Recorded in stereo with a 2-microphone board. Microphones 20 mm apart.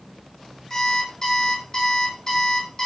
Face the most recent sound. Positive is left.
turn(degrees=25)  # may be behind; listen again after turning